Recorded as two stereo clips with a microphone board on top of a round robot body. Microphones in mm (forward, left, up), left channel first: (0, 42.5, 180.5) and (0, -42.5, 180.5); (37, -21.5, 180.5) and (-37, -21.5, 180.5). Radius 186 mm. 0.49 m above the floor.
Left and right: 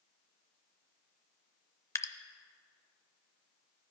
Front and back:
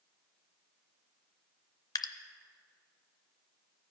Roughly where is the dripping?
Ahead left.